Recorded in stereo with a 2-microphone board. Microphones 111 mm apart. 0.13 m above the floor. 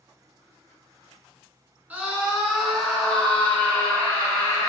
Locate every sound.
1.9 s a scream: 15° right (ahead or behind), 1.4 m; by 4.7 s 25° left (ahead or behind), 2 m